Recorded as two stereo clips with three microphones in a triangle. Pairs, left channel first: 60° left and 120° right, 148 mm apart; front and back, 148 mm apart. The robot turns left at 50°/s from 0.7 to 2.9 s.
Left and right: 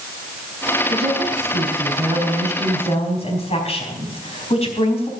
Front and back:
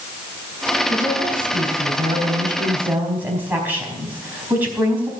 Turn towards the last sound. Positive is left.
turn(degrees=100)